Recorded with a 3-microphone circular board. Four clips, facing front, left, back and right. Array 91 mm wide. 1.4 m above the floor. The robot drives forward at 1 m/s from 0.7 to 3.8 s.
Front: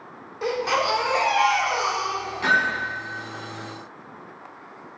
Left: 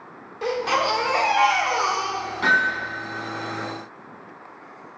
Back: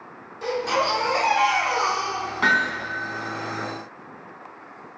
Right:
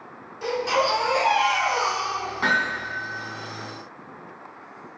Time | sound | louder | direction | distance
0.4 | a baby crying | even, even | 50° left | 1.4 m
2.4 | hammering | left 4 dB, even | 175° right | 2.5 m